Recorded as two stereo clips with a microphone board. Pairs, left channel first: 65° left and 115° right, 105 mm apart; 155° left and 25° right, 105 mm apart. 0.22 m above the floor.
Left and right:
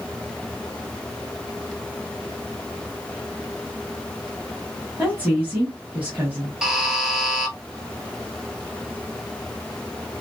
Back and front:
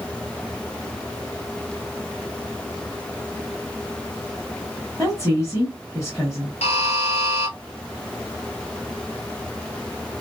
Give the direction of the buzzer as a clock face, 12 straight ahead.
7 o'clock.